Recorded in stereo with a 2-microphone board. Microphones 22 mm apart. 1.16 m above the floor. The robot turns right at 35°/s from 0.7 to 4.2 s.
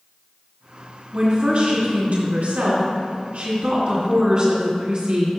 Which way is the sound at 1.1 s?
155° right.